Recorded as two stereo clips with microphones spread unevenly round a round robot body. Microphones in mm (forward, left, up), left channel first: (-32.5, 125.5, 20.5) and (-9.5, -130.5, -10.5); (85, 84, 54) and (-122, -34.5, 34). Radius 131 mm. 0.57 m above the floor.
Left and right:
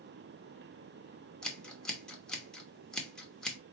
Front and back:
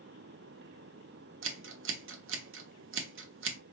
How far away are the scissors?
About 1.0 m.